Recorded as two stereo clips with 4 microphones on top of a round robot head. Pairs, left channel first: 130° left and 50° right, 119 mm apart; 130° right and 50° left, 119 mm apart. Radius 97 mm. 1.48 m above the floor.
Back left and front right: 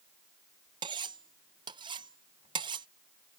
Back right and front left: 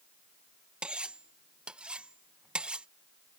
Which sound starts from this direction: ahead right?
Cutlery clinking, at 0.8 s.